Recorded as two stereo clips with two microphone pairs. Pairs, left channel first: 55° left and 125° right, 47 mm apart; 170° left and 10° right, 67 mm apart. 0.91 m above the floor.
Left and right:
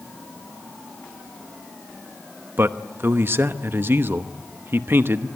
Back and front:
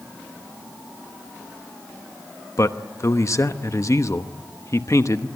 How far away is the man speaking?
About 0.9 m.